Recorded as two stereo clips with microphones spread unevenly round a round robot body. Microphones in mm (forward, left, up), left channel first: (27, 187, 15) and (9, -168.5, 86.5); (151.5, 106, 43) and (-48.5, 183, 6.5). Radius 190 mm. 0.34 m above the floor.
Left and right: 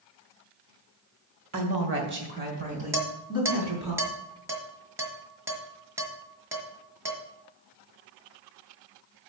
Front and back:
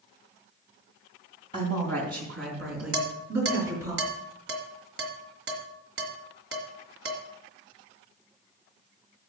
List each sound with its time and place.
1.5 s a woman speaking: 135° right, 2 m; by 3.9 s straight behind, 4.5 m
2.9 s dishes clattering: straight behind, 1.9 m